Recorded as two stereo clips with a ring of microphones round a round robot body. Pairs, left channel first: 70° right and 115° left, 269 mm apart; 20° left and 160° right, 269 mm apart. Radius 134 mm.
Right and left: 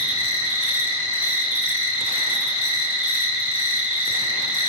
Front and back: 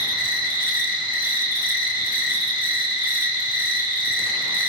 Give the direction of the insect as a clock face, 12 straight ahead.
1 o'clock.